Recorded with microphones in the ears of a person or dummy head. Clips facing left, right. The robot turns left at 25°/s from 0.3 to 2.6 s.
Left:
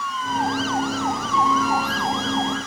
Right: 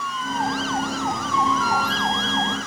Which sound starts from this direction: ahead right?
A flute, at 1.3 s.